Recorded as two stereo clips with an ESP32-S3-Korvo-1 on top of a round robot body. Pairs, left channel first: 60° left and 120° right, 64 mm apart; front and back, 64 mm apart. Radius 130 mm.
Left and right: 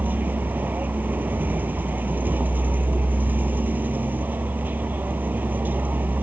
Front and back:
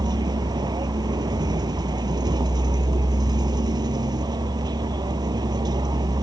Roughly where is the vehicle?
Behind.